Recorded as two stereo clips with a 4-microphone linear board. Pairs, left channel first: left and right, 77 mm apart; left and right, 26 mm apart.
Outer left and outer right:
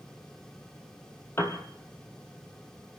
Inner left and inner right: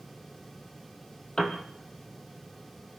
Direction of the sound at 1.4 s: 30° left (ahead or behind).